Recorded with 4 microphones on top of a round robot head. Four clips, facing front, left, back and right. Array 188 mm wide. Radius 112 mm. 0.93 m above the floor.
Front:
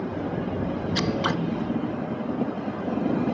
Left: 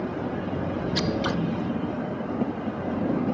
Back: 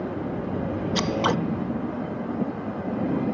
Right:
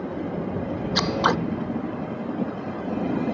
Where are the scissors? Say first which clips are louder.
Right 6 dB, back 3 dB; 130° right.